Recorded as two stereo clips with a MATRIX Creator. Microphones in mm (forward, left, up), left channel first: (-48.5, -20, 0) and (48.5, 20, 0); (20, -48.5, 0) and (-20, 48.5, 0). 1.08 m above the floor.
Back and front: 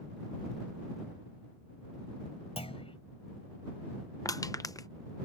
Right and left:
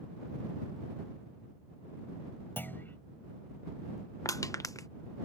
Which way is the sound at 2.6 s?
140° right.